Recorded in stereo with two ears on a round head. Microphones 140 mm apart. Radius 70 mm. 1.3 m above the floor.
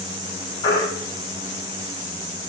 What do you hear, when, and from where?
0.6 s a baby crying: 25° left (ahead or behind), 7 m